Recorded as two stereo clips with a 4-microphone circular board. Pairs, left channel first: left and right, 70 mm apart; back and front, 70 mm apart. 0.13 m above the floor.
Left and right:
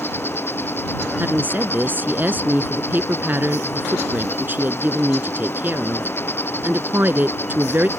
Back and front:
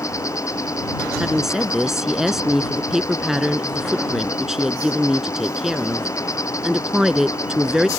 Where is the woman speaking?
80° right.